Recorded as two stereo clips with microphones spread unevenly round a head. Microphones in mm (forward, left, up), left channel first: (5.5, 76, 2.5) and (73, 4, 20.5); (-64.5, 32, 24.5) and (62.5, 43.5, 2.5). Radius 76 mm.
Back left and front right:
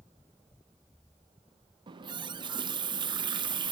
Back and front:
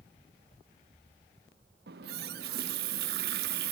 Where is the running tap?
15° right, 0.7 m.